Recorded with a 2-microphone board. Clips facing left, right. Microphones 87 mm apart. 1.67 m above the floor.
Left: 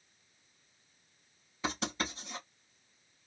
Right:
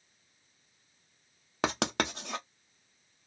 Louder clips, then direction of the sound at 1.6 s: Right 6 dB; 80° right.